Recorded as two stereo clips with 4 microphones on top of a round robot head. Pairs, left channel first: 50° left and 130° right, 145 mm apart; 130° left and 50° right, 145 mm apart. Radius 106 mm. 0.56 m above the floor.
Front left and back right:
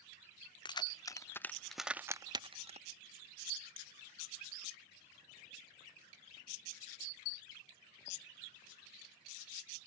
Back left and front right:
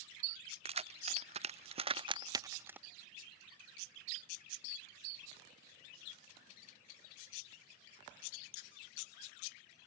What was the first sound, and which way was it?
Keys jangling, 5° right.